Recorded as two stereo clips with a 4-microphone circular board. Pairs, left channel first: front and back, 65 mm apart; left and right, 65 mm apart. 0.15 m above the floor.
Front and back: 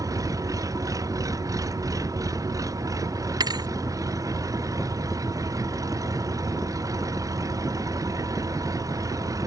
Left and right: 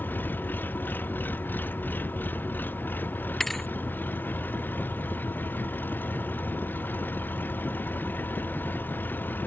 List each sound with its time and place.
0.0 s an engine running: 150° left
3.4 s a thud: 175° left